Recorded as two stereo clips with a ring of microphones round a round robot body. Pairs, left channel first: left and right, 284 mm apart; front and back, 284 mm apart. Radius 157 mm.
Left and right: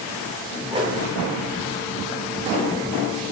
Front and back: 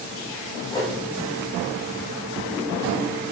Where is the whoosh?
55° right, 0.6 m.